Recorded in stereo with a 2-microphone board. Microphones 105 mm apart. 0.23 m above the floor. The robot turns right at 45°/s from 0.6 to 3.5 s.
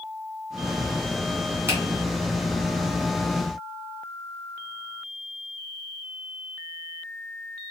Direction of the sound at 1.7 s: 20° right (ahead or behind).